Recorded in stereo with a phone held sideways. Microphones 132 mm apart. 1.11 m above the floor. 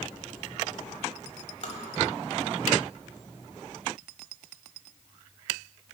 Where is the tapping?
55° left (ahead or behind), 1.4 m.